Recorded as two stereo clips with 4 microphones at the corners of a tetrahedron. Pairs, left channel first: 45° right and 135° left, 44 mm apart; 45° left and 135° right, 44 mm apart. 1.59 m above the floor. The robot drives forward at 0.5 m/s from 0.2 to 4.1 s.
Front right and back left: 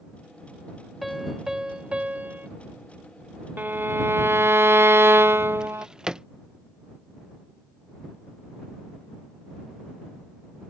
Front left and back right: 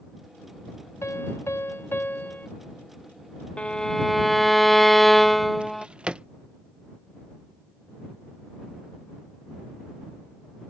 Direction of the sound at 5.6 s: 170° right.